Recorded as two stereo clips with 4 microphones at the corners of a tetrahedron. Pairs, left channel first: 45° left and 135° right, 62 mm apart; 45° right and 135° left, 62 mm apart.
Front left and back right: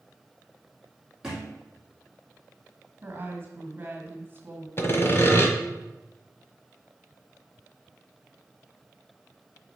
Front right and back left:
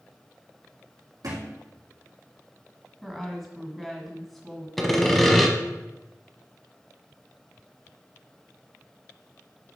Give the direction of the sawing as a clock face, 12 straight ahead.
11 o'clock.